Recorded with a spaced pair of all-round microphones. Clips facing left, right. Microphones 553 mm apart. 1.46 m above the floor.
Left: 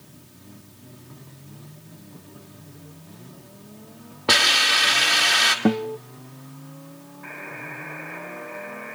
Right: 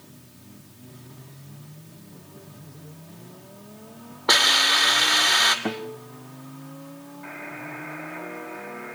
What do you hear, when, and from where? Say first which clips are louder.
4.3 s a hiss: left 1 dB; 50° left (ahead or behind), 2 m
5.7 s a guitar: left 10 dB; 60° left (ahead or behind), 0.9 m
7.2 s a buzzer: even; 5° right (ahead or behind), 5 m